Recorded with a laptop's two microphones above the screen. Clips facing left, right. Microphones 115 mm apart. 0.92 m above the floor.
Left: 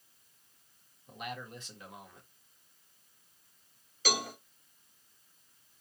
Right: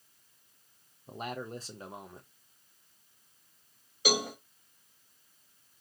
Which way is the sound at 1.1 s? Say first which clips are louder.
Right 4 dB; 35° right (ahead or behind).